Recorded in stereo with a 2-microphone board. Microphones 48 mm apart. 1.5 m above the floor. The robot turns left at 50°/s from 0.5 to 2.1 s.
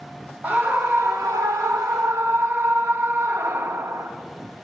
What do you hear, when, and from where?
0.4 s a scream: 35° right, 0.6 m; by 4.1 s 115° right, 0.6 m